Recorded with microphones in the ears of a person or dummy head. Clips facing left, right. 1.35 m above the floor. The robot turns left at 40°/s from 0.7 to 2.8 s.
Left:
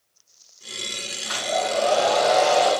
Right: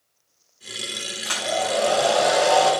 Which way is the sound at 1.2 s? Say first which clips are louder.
Even; 120° right.